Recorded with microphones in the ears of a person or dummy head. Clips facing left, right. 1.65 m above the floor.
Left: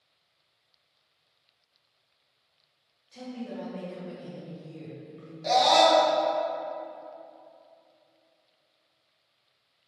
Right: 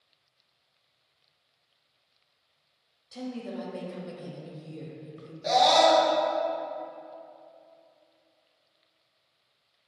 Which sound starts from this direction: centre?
A scream, at 5.4 s.